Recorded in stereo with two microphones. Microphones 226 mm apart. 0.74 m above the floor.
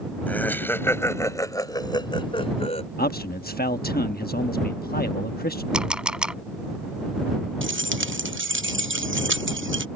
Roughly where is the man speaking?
Left.